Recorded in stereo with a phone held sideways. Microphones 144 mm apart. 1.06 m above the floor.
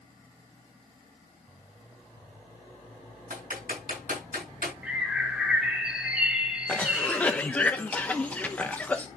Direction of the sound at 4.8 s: 5° right (ahead or behind).